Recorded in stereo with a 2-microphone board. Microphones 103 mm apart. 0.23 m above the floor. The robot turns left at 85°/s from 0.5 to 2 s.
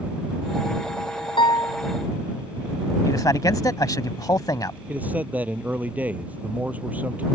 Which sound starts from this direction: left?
A man speaking, at 3.0 s.